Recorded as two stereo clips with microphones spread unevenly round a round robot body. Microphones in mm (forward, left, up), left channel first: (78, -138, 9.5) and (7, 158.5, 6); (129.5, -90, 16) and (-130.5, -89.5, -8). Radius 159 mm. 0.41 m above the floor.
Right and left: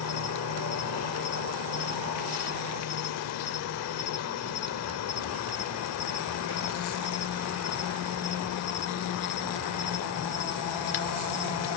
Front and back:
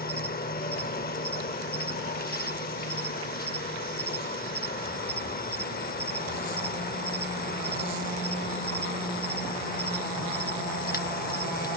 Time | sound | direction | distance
0.0 | an insect | 55° right | ?